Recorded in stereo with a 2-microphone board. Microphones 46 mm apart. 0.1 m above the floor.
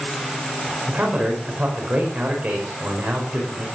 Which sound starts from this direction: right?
A man speaking, at 0.9 s.